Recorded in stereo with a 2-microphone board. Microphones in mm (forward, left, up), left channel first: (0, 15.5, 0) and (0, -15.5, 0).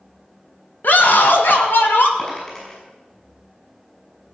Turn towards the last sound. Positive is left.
turn(degrees=25)  # may be behind; listen again after turning